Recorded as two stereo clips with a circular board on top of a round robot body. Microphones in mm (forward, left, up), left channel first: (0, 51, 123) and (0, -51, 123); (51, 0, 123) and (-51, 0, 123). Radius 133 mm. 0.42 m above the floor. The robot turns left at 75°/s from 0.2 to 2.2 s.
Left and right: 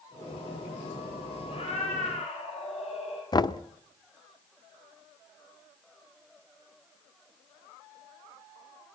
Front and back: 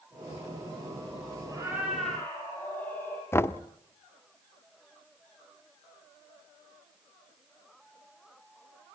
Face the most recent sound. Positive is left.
turn(degrees=60)